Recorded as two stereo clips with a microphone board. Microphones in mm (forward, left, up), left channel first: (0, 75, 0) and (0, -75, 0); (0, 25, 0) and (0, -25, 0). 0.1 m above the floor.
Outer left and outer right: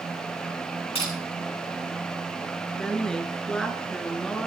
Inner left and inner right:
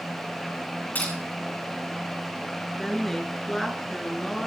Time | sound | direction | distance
0.9 | crushing | 40° left (ahead or behind) | 6.5 m
2.8 | a woman speaking | 5° left (ahead or behind) | 1.5 m